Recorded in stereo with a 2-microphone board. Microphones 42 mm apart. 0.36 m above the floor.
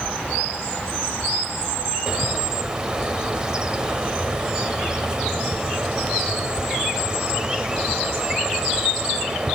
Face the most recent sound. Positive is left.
turn(degrees=-15)  # may be behind; listen again after turning